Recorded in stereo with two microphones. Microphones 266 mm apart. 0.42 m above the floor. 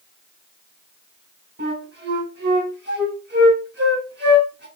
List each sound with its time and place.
1.6 s a flute: 40° right (ahead or behind), 1.3 m